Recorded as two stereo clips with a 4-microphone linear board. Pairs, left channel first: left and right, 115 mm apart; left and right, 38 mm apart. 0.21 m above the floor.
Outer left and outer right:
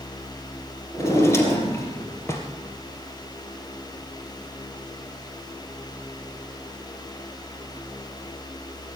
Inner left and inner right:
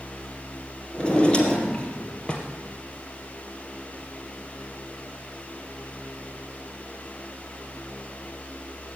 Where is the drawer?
25° left (ahead or behind), 2.5 m.